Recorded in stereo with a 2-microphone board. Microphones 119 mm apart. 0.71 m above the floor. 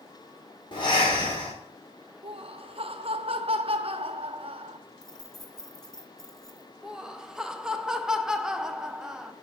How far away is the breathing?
About 2 m.